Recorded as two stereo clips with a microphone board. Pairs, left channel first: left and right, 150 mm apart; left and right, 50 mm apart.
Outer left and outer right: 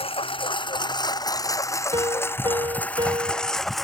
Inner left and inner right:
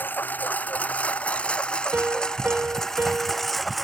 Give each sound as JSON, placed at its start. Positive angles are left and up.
{"t": 0.0, "sound": "a lawn mower", "side_deg": 35}
{"t": 1.9, "sound": "a piano", "side_deg": -30}